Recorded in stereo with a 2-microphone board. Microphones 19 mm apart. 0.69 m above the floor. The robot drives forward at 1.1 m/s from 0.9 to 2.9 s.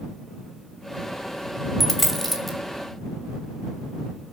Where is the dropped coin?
10° left (ahead or behind), 1.5 m; by 2.6 s 5° left (ahead or behind), 2.5 m.